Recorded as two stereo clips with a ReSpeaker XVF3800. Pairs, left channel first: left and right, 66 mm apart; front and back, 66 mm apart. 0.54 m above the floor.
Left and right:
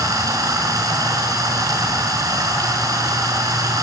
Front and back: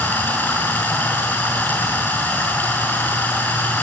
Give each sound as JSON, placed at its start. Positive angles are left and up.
{"t": 0.0, "sound": "running water", "azimuth_deg": -60, "distance_m": 5.5}